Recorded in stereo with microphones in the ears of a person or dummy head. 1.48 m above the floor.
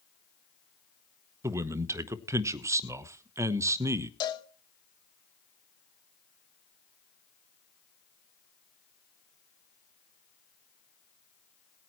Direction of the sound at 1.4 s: 15° right (ahead or behind).